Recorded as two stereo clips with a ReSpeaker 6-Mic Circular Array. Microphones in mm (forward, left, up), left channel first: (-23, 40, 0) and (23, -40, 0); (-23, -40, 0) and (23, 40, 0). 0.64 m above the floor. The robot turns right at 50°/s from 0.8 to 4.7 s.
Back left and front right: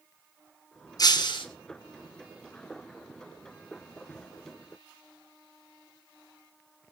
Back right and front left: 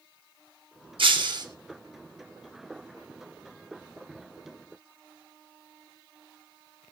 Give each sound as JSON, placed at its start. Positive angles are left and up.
{"t": 1.0, "sound": "breaking glass", "azimuth_deg": 75, "distance_m": 3.0}